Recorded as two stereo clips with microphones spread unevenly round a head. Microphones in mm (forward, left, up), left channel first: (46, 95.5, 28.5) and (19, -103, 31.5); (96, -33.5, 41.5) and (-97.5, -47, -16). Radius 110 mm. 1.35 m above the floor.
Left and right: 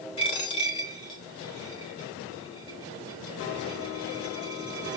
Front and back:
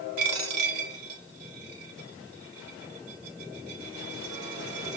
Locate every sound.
0.2 s a dropped coin: 150° left, 1.5 m